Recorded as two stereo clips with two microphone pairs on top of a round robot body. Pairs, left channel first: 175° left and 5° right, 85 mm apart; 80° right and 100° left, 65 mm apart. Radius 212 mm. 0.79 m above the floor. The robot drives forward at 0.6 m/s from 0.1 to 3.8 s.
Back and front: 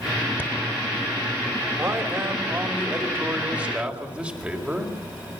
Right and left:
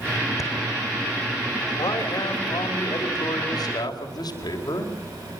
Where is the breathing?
115° right, 2.5 m; by 0.5 s 120° right, 2.5 m.